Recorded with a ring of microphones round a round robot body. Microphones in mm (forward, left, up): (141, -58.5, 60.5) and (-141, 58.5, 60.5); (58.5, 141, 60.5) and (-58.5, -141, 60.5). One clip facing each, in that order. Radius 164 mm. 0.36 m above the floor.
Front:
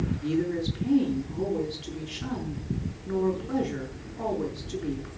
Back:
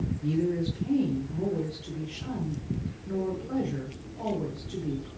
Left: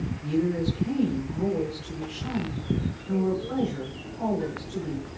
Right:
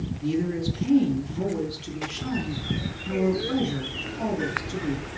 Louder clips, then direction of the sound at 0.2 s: Back 1 dB, left 1 dB; 85° right.